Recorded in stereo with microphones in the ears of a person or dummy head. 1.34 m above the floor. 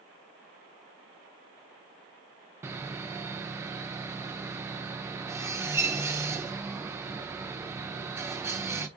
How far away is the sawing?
About 0.5 m.